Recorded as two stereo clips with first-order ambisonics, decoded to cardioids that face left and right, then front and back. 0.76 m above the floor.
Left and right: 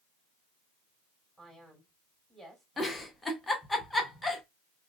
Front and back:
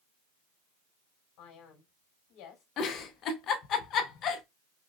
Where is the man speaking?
5° right, 2.5 m.